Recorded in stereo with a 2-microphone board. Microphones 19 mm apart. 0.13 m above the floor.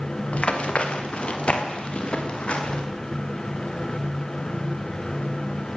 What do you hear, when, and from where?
0.3 s running footsteps: 75° left (ahead or behind), 4.5 m; by 2.8 s 70° left (ahead or behind), 6 m